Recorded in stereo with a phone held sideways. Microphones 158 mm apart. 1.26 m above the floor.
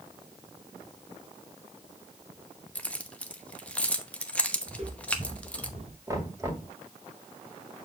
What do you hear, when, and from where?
2.8 s keys jangling: 10° left (ahead or behind), 0.8 m
4.7 s footsteps: 35° right (ahead or behind), 3 m; by 6.0 s 45° right (ahead or behind), 1.8 m
6.1 s knocking: 20° right (ahead or behind), 2.0 m